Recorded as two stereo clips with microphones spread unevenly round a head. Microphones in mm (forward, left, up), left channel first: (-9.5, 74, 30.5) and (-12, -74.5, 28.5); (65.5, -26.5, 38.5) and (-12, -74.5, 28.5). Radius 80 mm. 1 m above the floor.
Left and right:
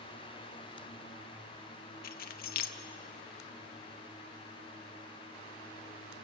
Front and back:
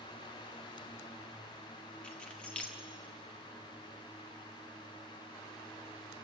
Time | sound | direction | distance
2.0 | keys jangling | 115° left | 1.0 m